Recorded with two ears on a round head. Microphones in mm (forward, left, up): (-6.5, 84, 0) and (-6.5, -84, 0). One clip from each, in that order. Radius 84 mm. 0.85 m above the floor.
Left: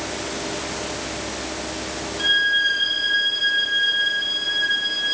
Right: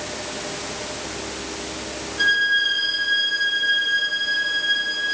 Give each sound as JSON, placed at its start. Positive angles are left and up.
{"t": 2.2, "sound": "a violin", "side_deg": -15, "distance_m": 8.5}